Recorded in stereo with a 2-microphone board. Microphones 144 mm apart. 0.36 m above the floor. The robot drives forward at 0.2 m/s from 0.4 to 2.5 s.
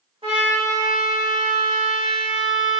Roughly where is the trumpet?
Right.